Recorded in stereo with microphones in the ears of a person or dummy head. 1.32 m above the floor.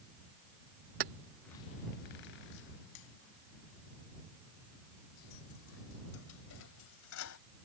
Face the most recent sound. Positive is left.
turn(degrees=75)  # may be behind; listen again after turning